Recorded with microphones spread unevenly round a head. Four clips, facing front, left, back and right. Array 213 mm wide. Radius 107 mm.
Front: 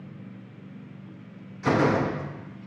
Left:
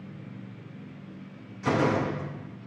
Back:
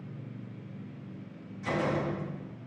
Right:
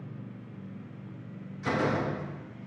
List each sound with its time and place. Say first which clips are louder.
1.6 s a door slam: left 4 dB, front 8 dB; 15° left, 1.1 m